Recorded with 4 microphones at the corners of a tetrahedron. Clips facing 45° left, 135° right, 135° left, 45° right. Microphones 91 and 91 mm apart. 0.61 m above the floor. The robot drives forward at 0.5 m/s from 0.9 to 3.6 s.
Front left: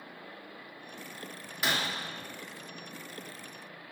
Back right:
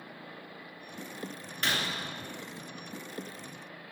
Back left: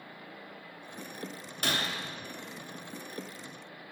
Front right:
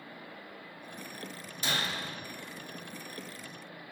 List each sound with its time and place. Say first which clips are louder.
1.6 s breaking glass: front left 1 dB, back left 1 dB; 125° left, 1.2 m; by 1.9 s 130° left, 1.2 m